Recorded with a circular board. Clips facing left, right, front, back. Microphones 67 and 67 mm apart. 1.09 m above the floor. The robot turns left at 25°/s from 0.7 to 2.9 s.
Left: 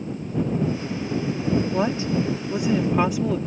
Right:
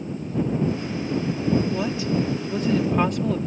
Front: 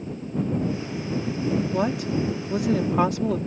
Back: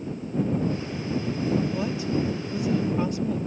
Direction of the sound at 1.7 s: 35° left.